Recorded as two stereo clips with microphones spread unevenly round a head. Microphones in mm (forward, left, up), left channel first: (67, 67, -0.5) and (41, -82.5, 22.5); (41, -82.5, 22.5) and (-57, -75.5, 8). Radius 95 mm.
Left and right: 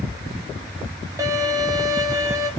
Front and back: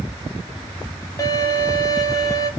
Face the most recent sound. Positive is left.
turn(degrees=-35)